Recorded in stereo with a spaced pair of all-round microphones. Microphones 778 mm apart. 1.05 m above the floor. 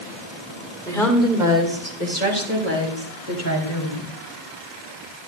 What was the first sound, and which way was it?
A woman speaking, 5° left (ahead or behind).